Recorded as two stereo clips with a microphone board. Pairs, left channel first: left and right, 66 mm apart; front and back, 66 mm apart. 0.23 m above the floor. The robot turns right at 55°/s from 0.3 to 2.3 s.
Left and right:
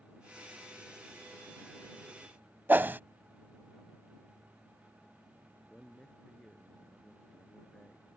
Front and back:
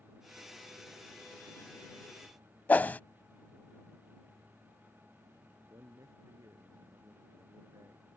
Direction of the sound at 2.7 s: 50° right.